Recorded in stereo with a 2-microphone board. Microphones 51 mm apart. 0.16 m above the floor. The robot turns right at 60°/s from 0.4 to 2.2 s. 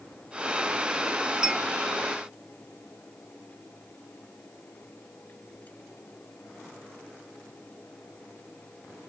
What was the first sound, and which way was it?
A clink, 15° right (ahead or behind).